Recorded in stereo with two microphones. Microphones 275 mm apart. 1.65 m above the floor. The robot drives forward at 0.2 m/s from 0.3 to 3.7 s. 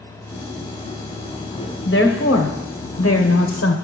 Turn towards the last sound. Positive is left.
turn(degrees=60)  # may be behind; listen again after turning